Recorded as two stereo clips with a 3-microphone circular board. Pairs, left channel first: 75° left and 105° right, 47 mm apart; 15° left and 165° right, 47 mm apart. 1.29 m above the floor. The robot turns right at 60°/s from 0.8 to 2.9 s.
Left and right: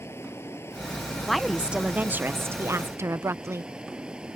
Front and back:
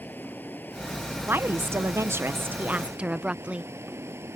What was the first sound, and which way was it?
Running water, 60° left.